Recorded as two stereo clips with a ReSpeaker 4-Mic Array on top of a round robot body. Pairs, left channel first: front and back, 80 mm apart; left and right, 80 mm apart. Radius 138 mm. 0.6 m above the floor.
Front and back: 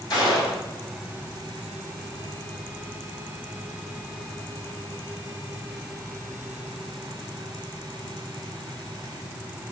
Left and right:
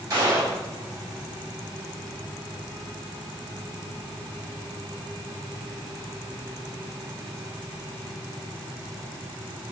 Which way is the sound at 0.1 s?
35° right.